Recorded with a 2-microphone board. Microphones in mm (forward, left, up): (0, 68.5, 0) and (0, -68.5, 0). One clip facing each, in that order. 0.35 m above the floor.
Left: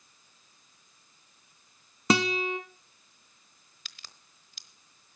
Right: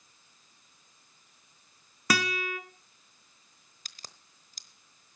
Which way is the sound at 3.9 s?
40° right (ahead or behind).